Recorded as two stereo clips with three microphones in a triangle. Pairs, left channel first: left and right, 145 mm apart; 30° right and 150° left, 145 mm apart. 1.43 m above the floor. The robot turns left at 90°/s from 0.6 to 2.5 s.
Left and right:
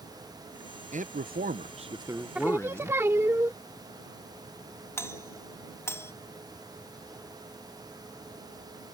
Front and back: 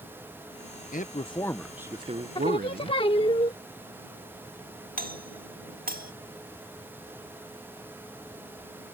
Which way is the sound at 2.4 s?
15° right.